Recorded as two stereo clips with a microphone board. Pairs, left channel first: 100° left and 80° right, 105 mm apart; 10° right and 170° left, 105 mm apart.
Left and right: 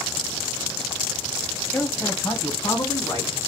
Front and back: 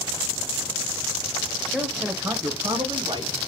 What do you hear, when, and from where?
1.7 s a man speaking: 60° left, 1.1 m; by 3.3 s 145° left, 1.8 m